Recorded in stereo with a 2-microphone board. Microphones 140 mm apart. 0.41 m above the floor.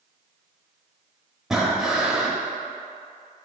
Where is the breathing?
5° right (ahead or behind), 0.9 m.